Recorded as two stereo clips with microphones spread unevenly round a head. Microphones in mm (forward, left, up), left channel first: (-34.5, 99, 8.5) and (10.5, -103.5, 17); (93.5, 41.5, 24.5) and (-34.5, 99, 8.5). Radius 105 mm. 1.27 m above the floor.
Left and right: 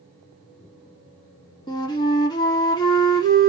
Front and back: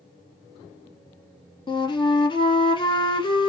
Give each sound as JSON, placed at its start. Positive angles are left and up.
{"t": 1.7, "sound": "a flute", "azimuth_deg": 30, "distance_m": 1.4}